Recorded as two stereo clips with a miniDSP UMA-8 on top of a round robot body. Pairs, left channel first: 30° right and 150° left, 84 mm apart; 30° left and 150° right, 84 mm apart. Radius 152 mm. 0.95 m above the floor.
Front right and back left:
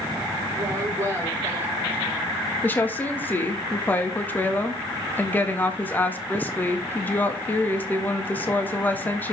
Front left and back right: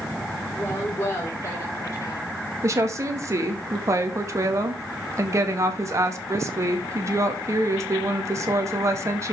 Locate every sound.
0.5 s a woman speaking: 95° left, 5 m; by 2.3 s 80° left, 5.5 m
2.6 s a woman speaking: 100° right, 2.0 m